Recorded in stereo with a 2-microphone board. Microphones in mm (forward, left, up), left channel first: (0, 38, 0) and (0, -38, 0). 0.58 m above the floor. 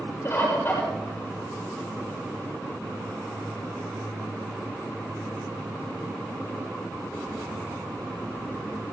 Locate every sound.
0.2 s a bird: 35° left (ahead or behind), 8.5 m